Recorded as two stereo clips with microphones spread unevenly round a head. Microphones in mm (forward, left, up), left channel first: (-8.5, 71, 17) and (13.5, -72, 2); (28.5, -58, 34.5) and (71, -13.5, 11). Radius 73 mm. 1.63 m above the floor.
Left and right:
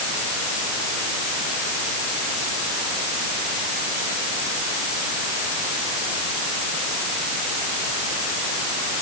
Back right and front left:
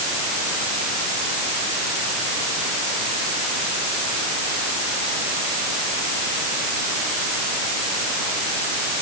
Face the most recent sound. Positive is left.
No sound to turn to.